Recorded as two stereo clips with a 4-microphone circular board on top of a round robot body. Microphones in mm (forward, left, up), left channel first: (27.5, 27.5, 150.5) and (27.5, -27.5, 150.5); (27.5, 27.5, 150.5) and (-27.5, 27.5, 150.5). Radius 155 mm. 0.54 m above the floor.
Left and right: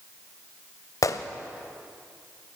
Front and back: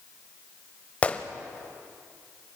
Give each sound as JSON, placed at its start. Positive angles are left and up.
{"t": 1.0, "sound": "a gunshot", "azimuth_deg": 65, "distance_m": 0.8}